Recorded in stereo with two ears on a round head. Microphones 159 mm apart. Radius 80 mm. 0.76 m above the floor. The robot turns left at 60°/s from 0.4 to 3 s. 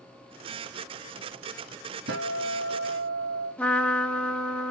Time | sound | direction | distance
2.1 | a guitar | 65° right | 2.0 m
3.6 | a trumpet | 10° left (ahead or behind) | 1.5 m